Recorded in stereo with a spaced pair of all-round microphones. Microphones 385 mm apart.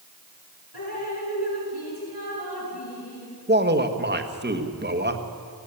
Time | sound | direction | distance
0.7 | dripping | 85° left | 7 m
3.5 | a man speaking | 25° right (ahead or behind) | 1.4 m